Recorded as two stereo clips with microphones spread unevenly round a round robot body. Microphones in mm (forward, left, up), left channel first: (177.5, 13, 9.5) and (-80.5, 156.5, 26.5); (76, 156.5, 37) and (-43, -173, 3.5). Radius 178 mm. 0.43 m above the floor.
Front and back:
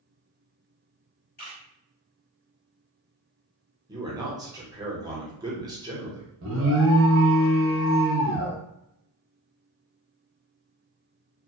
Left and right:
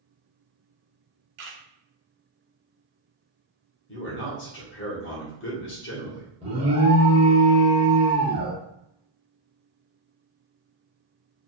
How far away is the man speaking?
About 0.9 m.